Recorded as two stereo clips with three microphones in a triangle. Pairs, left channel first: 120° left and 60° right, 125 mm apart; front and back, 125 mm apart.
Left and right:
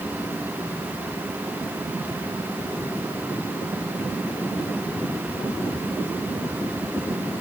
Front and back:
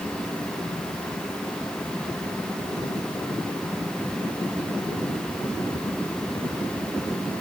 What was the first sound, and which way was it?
Only background noise.